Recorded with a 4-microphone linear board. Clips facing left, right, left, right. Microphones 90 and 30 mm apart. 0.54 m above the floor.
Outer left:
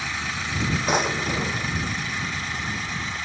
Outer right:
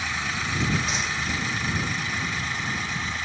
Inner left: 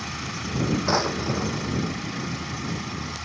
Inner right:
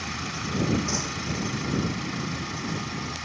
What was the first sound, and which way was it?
A drawer, 50° left (ahead or behind).